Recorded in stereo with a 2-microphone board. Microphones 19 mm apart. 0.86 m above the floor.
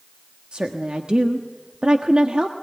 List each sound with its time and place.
0.5 s a woman speaking: 55° right (ahead or behind), 1.3 m